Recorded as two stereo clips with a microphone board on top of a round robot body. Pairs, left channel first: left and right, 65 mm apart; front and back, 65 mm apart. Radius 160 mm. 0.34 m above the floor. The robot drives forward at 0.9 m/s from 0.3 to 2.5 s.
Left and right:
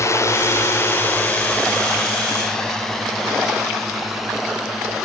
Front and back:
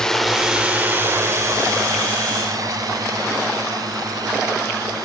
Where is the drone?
80° left; by 5.0 s 175° right.